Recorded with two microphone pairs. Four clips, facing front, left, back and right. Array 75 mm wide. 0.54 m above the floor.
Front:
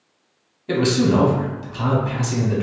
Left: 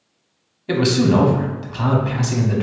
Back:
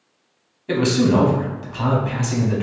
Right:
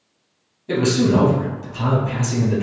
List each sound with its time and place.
0.7 s a man speaking: 95° left, 1.0 m